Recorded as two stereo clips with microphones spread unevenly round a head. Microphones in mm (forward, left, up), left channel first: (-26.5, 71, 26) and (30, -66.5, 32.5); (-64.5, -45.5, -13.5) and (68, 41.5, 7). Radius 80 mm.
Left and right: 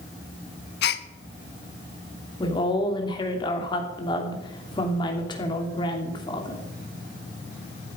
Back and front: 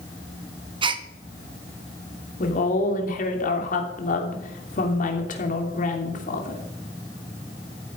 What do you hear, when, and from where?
0.8 s a gasp: 95° left, 0.9 m
2.4 s a woman speaking: 175° left, 3 m